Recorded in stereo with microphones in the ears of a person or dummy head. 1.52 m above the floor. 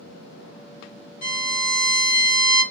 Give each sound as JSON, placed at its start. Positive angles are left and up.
{"t": 1.2, "sound": "a violin", "side_deg": 65, "distance_m": 1.4}